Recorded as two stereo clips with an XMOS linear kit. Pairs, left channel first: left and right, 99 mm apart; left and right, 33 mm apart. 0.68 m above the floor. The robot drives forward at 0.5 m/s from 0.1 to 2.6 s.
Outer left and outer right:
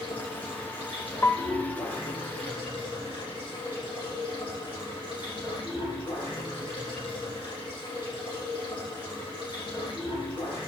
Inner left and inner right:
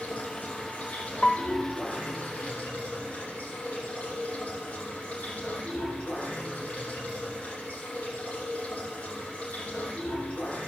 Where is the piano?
25° left (ahead or behind), 0.5 m; by 1.6 s 20° left (ahead or behind), 0.7 m.